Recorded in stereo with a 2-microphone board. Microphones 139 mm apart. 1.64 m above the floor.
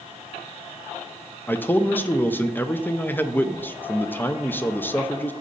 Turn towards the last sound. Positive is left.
turn(degrees=15)  # may be behind; listen again after turning